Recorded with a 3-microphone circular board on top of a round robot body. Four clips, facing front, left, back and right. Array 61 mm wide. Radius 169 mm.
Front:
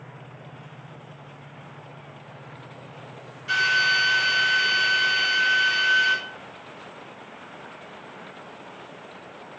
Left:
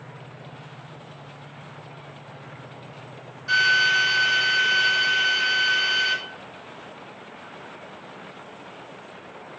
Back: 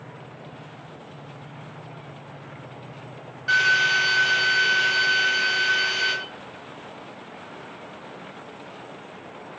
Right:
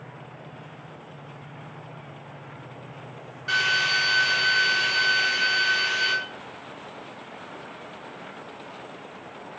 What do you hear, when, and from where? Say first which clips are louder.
3.5 s a drill: left 4 dB, back 2 dB; 165° right, 3.5 m